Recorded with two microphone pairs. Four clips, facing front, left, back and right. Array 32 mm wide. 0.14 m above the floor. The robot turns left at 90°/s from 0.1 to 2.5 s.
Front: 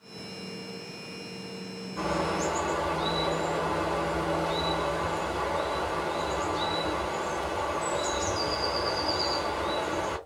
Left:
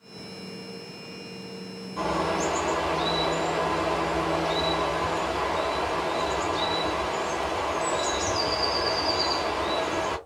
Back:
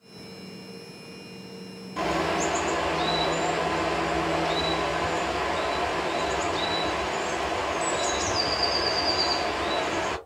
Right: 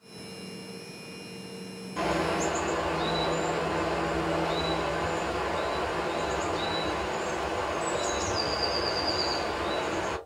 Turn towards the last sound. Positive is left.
turn(degrees=165)